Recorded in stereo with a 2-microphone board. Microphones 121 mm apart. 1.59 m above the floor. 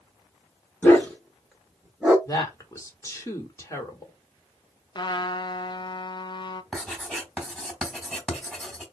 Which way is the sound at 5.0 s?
35° left (ahead or behind).